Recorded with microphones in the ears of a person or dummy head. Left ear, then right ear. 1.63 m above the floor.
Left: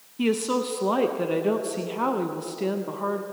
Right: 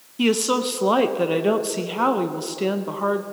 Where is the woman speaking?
15° right (ahead or behind), 0.7 m.